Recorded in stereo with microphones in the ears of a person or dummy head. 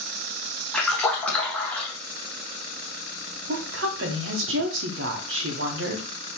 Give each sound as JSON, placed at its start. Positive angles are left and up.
{"t": 0.7, "sound": "a splash", "side_deg": 0, "distance_m": 1.1}
{"t": 3.5, "sound": "a woman speaking", "side_deg": -65, "distance_m": 0.8}